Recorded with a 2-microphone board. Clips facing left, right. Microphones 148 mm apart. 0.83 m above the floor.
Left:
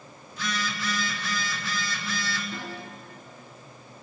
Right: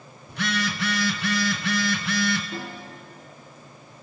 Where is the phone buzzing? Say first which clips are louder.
Right 5 dB; 70° right (ahead or behind), 0.8 m.